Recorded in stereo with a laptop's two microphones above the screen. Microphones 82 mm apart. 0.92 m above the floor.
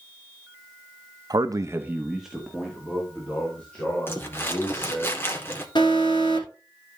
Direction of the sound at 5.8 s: 70° left (ahead or behind).